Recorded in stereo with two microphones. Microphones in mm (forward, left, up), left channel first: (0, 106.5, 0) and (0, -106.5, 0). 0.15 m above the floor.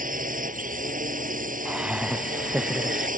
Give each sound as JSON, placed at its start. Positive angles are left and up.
{"t": 0.0, "sound": "a drone", "side_deg": -40}
{"t": 1.6, "sound": "laughter", "side_deg": -5}